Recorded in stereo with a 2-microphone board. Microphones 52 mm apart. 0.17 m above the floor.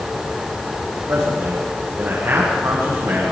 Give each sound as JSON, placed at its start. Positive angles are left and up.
{"t": 1.1, "sound": "a man speaking", "side_deg": -80, "distance_m": 8.0}